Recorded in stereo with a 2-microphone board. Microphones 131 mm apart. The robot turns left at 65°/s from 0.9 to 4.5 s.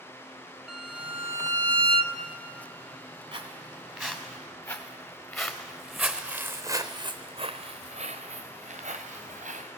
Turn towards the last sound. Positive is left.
turn(degrees=-85)